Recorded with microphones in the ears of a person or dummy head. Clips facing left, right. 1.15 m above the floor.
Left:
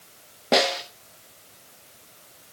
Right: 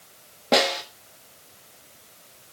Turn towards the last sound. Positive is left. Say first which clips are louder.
# even
turn(degrees=-5)  # may be behind; listen again after turning